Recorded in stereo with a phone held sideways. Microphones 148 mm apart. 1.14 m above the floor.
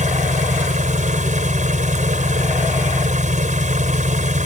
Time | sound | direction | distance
0.0 | an engine running | 60° right (ahead or behind) | ?